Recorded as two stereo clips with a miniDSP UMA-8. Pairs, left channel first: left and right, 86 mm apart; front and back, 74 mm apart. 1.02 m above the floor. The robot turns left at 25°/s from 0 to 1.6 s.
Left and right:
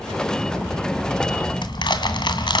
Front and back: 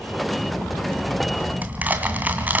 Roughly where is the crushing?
Behind left.